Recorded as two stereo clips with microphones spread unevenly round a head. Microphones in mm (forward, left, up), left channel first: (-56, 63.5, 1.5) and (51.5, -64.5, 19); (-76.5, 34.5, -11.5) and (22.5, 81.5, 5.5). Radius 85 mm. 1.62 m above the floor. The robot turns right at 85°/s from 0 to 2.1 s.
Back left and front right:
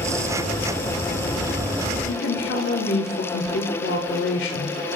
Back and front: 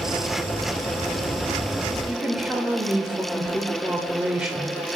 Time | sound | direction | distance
2.0 | a woman speaking | 105° left | 0.8 m